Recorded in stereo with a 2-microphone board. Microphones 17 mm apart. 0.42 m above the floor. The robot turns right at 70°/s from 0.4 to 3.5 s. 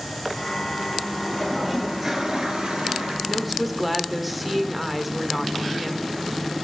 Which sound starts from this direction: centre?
A woman speaking, at 3.3 s.